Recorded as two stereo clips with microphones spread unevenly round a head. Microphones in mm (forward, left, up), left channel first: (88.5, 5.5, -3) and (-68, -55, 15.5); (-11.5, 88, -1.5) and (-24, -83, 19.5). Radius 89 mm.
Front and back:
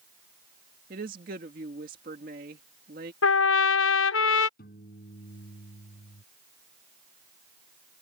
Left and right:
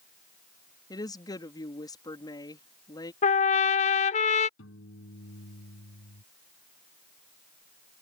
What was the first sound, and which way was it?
A woman speaking, 155° left.